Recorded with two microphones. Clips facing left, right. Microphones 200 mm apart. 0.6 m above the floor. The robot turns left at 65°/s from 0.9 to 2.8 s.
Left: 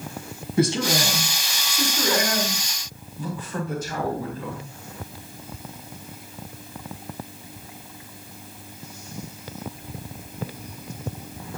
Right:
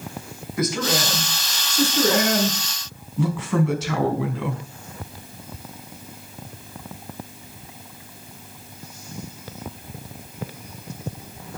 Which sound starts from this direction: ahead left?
A man speaking, at 0.6 s.